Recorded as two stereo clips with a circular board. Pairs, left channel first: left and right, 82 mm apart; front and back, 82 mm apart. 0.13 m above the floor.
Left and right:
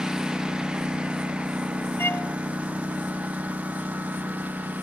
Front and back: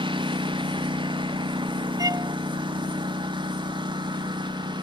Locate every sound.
0.0 s a lawn mower: 170° right; by 4.8 s 160° right
2.0 s a violin: 150° left